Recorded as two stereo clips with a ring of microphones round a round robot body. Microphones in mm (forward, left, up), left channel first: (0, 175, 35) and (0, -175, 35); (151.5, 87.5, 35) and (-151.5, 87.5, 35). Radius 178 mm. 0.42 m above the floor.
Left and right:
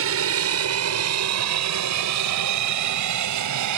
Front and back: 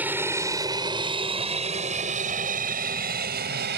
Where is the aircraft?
100° right; by 3.8 s 120° right.